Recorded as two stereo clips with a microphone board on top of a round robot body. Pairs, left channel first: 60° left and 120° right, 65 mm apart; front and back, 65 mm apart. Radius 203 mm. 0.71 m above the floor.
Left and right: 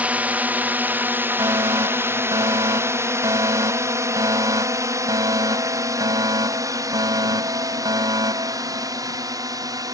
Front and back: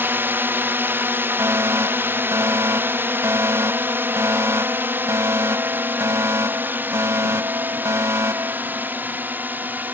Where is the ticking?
No ticking in this recording.